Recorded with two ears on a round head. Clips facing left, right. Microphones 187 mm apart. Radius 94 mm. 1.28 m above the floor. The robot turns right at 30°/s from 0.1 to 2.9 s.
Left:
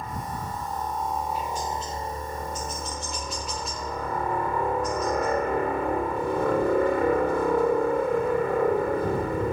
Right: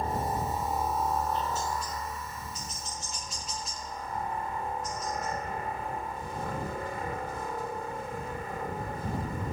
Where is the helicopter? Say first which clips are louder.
Right 3 dB; 30° right; by 9.5 s 55° left.